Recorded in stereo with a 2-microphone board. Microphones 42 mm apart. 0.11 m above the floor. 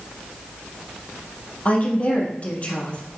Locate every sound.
1.6 s a woman speaking: 35° left (ahead or behind), 3 m